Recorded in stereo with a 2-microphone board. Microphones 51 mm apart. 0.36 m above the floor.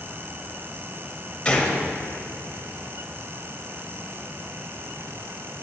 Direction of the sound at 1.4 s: 25° left (ahead or behind).